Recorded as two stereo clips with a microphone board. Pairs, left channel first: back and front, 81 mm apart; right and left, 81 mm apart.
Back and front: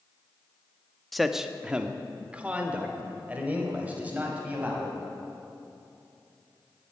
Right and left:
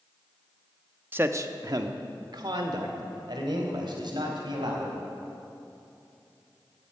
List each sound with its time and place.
1.1 s a man speaking: 90° left, 0.7 m; by 5.0 s 70° left, 4 m